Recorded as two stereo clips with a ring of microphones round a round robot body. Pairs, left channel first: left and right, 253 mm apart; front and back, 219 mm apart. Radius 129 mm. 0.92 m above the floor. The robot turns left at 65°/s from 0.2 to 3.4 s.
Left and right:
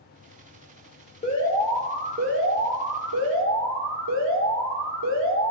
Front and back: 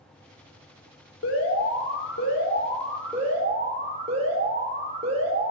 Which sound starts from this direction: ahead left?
An alarm, at 1.2 s.